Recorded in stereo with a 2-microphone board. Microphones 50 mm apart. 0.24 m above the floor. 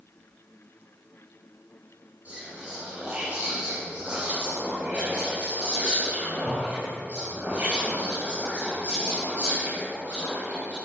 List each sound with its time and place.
2.2 s whispering: 30° right (ahead or behind), 4.5 m